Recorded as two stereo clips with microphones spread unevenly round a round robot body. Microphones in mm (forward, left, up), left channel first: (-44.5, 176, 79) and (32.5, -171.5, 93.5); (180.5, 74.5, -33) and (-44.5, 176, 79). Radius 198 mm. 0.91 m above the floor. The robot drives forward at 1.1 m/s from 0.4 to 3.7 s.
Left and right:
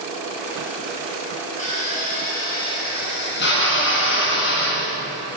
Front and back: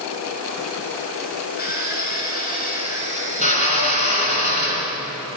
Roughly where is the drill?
Ahead left.